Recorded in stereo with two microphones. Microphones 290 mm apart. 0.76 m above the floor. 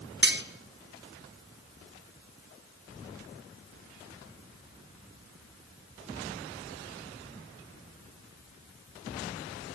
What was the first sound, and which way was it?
Cutlery clinking, 40° right (ahead or behind).